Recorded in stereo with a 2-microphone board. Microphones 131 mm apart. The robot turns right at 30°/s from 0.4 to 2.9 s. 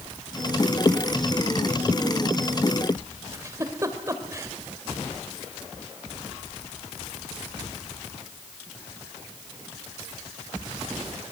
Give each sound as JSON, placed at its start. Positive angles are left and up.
{"t": 3.3, "sound": "a giggle", "side_deg": -25, "distance_m": 1.9}